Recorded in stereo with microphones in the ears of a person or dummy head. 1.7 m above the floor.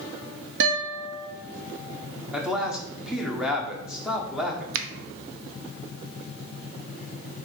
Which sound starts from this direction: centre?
A man speaking, at 2.3 s.